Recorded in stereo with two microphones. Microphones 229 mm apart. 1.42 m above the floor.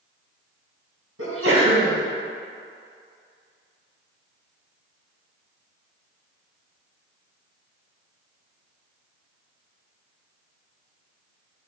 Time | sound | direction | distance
1.2 | a sneeze | 80° right | 2 m